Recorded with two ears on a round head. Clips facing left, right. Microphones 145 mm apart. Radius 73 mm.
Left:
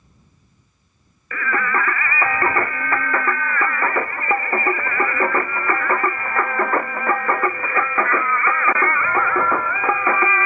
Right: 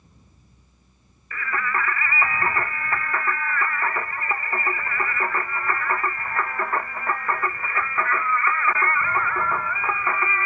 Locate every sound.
1.3 s singing: 50° left (ahead or behind)